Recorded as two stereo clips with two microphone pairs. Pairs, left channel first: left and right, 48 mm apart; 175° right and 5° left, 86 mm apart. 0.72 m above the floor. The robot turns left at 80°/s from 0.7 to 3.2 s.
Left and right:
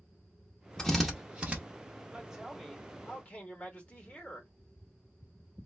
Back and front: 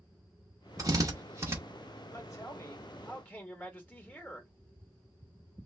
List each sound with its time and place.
0.8 s a drill: 20° left, 0.9 m; by 1.6 s 45° right, 0.9 m
2.1 s a man speaking: 145° right, 1.1 m; by 4.5 s 130° left, 1.1 m